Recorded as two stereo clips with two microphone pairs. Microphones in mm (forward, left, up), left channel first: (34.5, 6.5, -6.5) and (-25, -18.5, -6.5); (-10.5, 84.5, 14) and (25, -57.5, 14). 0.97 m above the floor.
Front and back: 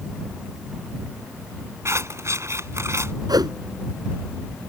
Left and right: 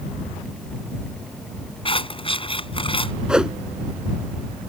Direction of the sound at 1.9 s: 155° left.